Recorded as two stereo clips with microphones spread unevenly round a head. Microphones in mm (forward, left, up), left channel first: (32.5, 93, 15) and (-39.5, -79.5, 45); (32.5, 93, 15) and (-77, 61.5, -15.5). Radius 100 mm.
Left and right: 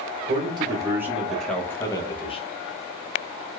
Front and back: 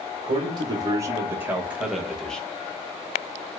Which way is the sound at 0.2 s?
175° right.